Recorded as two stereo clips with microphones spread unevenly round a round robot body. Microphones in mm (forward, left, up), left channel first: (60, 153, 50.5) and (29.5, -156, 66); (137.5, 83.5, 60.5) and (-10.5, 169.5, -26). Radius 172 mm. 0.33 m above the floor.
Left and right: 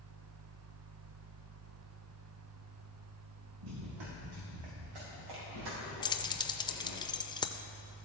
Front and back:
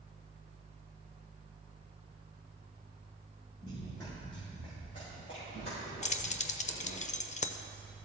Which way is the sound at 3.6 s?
115° right.